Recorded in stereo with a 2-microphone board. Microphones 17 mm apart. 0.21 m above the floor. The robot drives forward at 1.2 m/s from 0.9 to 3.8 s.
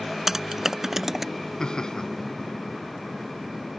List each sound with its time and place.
0.3 s typing on a keyboard: 25° right (ahead or behind); by 1.2 s 15° right (ahead or behind)
1.6 s laughter: 50° left (ahead or behind); by 2.1 s 45° left (ahead or behind)